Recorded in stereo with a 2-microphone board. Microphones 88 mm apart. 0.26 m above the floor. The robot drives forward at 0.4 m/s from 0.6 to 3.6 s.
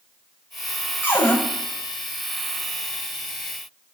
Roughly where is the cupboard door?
Left.